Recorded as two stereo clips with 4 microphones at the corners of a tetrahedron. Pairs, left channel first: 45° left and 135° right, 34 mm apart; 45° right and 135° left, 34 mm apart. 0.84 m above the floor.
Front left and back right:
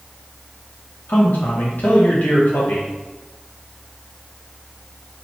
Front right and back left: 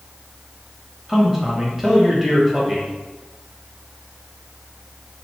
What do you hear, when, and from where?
1.1 s a man speaking: 55° left, 0.9 m